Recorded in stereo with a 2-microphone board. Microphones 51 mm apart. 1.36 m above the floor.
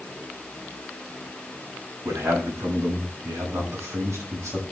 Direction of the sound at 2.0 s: 85° right.